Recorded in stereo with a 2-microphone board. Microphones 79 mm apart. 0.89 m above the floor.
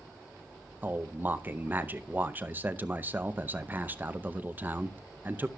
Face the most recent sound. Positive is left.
turn(degrees=-25)  # may be behind; listen again after turning